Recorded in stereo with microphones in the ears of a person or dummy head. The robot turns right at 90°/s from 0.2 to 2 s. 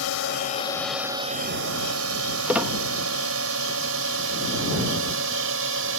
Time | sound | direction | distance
0.0 | a drone | 70° left (ahead or behind) | ?
2.5 | a squeak | 10° right (ahead or behind) | ?